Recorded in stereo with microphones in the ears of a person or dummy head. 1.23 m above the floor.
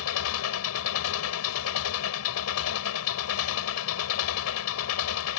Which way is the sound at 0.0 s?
85° left.